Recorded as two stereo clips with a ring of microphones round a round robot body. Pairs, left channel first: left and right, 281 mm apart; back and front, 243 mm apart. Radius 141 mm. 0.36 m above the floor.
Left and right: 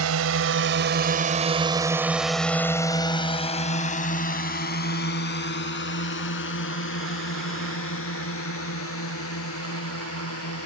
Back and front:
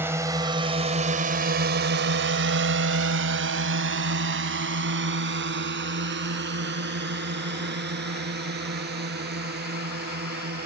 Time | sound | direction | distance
0.0 | a drone | 80° right | ?